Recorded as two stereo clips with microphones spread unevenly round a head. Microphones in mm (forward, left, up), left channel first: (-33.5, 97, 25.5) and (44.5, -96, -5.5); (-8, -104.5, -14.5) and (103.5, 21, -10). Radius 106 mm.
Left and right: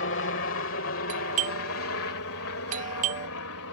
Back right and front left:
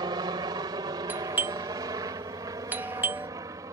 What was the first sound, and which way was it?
A helicopter, 110° left.